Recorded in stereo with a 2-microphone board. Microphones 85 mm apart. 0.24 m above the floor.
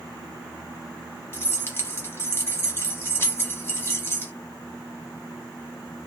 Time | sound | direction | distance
1.3 | keys jangling | 30° left (ahead or behind) | 1.0 m